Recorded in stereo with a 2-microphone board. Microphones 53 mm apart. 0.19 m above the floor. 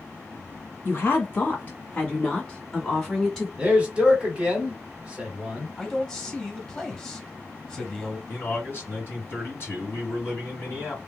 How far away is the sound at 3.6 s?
About 1.2 m.